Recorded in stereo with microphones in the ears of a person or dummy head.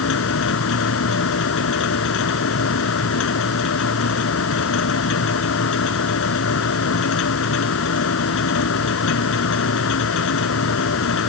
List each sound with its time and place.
0.0 s a machine running: 75° left (ahead or behind)